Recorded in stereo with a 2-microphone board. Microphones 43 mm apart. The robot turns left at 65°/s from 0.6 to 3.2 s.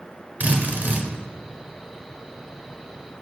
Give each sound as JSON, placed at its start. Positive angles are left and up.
{"t": 0.4, "sound": "a drill", "azimuth_deg": -70, "distance_m": 1.2}